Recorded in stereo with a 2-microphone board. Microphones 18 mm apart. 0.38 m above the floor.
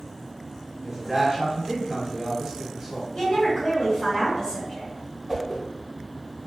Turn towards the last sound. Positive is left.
turn(degrees=-20)  # may be behind; listen again after turning